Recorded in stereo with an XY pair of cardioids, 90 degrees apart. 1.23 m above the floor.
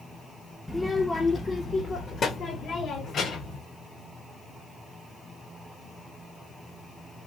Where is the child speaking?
5° left, 0.8 m; by 3.6 s 65° left, 1.8 m.